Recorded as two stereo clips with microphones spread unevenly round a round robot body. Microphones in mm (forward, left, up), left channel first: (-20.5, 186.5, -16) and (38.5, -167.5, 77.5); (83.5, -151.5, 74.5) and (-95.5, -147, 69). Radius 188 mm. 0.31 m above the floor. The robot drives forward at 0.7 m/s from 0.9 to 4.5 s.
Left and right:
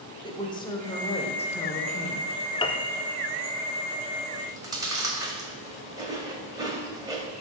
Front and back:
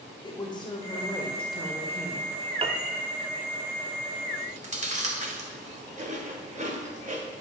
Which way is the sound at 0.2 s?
50° left.